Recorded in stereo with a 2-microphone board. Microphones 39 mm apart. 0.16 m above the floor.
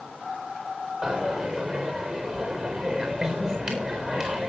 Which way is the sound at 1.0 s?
25° right (ahead or behind).